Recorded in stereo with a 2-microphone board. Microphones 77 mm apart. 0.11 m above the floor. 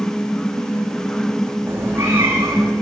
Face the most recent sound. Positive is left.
turn(degrees=-30)  # may be behind; listen again after turning